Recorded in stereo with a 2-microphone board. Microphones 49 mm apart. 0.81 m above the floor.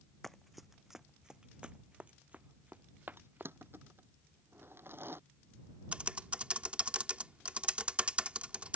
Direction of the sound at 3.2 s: 50° right (ahead or behind).